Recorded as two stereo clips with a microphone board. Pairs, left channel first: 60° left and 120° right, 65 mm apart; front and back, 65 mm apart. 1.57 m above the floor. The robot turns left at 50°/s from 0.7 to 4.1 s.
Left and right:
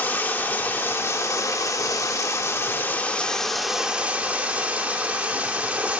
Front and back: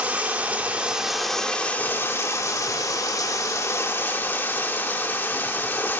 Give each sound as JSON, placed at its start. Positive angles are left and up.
{"t": 0.0, "sound": "running water", "azimuth_deg": 115, "distance_m": 2.0}